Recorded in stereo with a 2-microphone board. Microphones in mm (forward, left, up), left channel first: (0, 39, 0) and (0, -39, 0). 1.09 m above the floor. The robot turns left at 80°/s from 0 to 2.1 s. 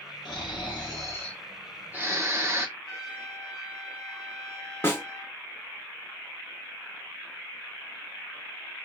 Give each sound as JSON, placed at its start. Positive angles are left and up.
{"t": 0.2, "sound": "snoring", "azimuth_deg": 115, "distance_m": 1.4}
{"t": 2.8, "sound": "a trumpet", "side_deg": 0, "distance_m": 2.5}
{"t": 4.8, "sound": "a snare drum", "side_deg": 30, "distance_m": 0.8}